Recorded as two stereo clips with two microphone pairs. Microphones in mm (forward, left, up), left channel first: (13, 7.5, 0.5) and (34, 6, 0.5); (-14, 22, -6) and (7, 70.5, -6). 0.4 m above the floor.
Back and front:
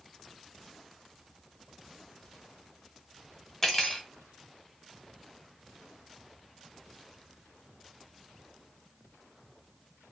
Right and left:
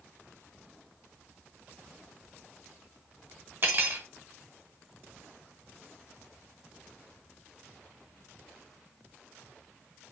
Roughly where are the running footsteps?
I don't hear running footsteps.